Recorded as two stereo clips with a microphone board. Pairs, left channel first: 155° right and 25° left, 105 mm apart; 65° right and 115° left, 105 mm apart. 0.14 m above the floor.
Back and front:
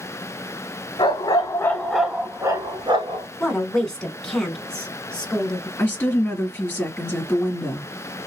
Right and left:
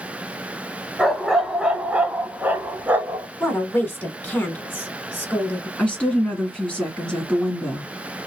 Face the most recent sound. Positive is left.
turn(degrees=-125)